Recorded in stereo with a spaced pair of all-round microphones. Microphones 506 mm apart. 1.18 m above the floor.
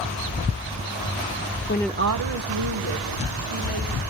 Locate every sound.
1.7 s a woman speaking: 25° left (ahead or behind), 0.6 m; by 4.0 s 85° right, 3.5 m